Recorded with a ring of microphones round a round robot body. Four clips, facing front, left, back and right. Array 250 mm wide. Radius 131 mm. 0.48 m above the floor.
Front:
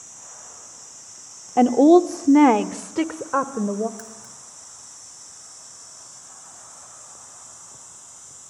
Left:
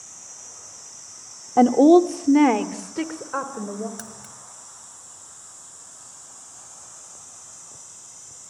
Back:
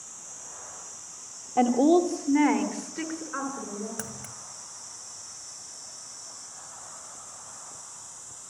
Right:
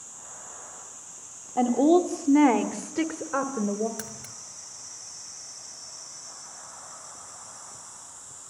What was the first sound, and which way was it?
A woman speaking, 60° left.